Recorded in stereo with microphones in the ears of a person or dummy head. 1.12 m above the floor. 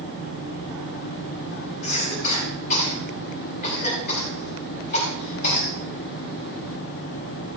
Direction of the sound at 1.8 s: 55° left (ahead or behind).